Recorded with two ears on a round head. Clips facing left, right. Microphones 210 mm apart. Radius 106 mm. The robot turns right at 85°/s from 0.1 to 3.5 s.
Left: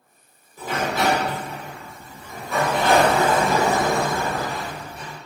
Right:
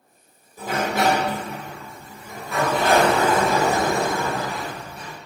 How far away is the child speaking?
I don't hear a child speaking.